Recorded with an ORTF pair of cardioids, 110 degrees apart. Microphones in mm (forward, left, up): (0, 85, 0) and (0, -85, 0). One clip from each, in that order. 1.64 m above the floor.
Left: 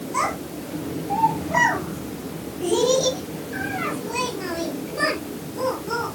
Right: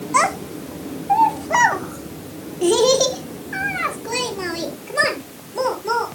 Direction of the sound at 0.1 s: 60° right.